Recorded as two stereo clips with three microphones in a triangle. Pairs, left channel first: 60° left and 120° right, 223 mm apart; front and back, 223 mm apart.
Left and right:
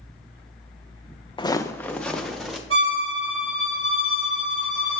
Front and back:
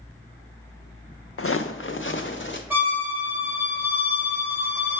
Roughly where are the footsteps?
Ahead.